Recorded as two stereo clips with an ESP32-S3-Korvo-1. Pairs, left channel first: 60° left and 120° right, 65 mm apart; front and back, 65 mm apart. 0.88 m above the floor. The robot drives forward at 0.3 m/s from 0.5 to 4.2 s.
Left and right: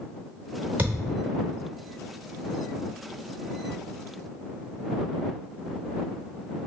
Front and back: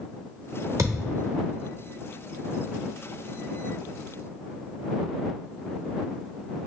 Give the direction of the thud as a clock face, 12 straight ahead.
6 o'clock.